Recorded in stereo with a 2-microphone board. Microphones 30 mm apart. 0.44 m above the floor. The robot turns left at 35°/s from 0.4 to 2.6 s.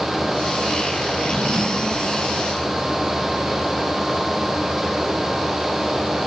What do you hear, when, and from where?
1.1 s a drawer: 65° left, 8.5 m; by 2.0 s 35° left, 8.5 m